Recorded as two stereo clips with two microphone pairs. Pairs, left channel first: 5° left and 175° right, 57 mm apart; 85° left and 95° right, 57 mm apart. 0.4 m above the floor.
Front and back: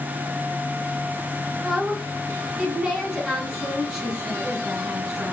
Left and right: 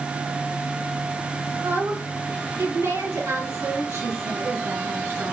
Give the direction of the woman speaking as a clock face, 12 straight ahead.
3 o'clock.